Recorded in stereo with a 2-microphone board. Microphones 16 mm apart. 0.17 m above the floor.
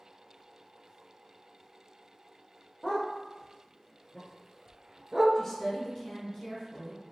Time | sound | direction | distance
2.8 | a dog barking | 65° left (ahead or behind) | 1.1 m
5.3 | a woman speaking | 35° left (ahead or behind) | 1.3 m